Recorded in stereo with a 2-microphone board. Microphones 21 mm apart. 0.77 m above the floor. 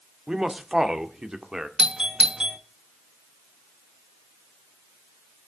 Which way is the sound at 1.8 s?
40° right (ahead or behind).